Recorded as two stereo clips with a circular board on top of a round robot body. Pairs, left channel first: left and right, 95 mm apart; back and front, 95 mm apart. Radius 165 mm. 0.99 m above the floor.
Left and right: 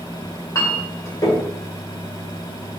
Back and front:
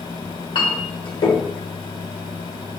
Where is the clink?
150° left, 2 m.